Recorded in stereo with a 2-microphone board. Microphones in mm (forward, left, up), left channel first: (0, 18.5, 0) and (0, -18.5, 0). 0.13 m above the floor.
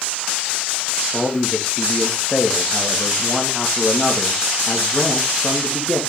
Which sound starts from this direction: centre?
A man speaking, at 1.1 s.